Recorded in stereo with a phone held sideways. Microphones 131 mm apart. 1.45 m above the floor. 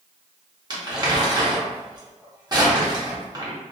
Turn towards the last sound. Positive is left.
turn(degrees=-30)  # may be behind; listen again after turning